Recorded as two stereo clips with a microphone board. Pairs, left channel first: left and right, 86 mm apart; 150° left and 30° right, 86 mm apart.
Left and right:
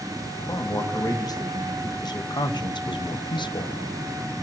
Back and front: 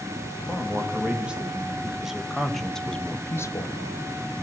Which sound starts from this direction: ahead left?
A man speaking, at 0.5 s.